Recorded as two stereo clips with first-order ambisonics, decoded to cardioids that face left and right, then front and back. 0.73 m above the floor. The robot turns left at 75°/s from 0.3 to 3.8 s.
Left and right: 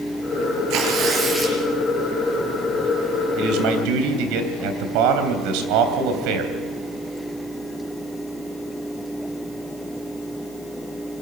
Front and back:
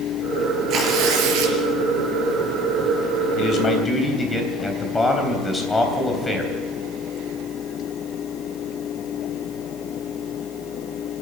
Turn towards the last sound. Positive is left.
turn(degrees=-80)